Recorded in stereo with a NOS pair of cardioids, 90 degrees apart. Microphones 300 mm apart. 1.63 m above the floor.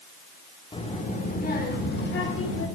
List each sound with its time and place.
0.7 s a child speaking: 20° left, 1.6 m; by 2.7 s 45° left, 2 m